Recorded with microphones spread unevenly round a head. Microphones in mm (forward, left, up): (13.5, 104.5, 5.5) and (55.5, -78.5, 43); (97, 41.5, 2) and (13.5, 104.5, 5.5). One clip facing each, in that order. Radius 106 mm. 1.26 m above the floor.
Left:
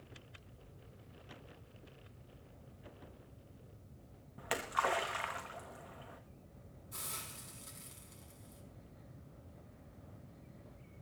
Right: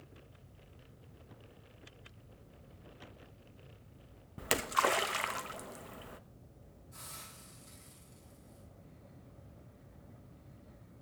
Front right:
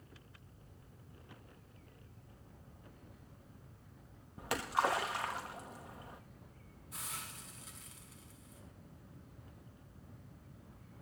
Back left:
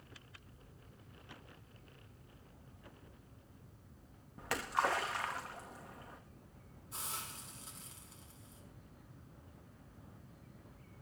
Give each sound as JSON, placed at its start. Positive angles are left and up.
{"t": 4.4, "sound": "a splash", "azimuth_deg": -120, "distance_m": 0.8}
{"t": 6.9, "sound": "a hiss", "azimuth_deg": 85, "distance_m": 6.0}